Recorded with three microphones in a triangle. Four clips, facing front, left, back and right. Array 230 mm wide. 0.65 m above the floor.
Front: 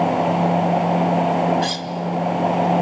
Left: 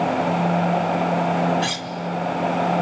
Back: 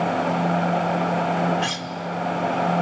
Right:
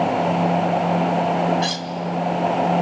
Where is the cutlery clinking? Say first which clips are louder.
Right 2 dB, front 3 dB; 145° left, 1.1 m.